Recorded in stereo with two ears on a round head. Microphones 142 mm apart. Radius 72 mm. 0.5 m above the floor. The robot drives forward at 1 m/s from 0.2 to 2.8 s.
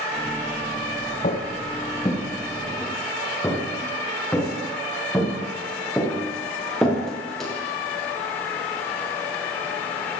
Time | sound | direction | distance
1.2 | footsteps | 45° left (ahead or behind) | 1.7 m